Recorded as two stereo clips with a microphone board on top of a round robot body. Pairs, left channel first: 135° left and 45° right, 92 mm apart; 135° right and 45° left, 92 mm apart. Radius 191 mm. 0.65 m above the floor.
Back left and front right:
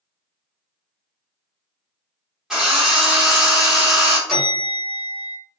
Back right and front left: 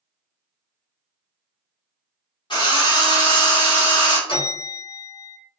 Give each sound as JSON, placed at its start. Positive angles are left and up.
{"t": 2.5, "sound": "a drill", "azimuth_deg": -130, "distance_m": 1.6}
{"t": 4.3, "sound": "a bell", "azimuth_deg": -135, "distance_m": 1.6}